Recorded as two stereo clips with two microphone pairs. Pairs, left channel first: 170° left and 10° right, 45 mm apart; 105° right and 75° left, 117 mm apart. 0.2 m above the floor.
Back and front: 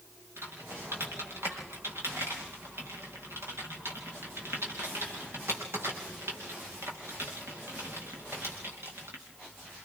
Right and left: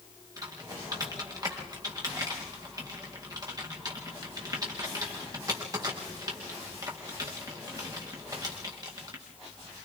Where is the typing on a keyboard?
15° left, 5 m.